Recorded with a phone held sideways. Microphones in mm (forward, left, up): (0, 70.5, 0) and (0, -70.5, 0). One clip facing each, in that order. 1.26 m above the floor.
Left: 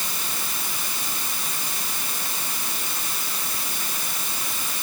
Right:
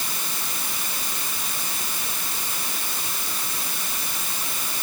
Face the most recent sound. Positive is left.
No sound to turn to.